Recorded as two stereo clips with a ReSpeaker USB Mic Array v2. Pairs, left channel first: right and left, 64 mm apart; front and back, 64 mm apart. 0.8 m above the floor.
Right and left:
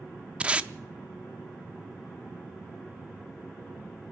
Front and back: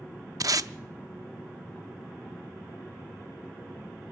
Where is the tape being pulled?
160° left, 0.6 m.